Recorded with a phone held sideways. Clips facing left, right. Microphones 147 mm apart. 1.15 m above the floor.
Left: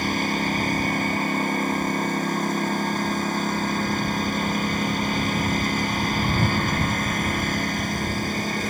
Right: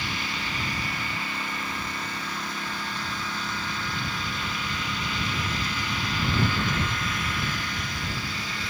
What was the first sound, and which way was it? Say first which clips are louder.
A lawn mower: left 10 dB; 45° left (ahead or behind).